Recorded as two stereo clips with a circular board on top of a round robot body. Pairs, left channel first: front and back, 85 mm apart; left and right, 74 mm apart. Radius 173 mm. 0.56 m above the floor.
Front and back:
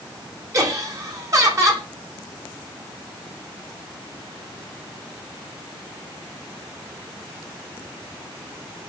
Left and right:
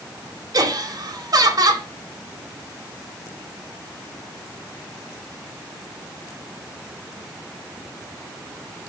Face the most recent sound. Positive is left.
turn(degrees=-130)